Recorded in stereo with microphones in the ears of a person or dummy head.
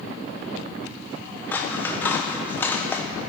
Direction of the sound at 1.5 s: 10° left (ahead or behind).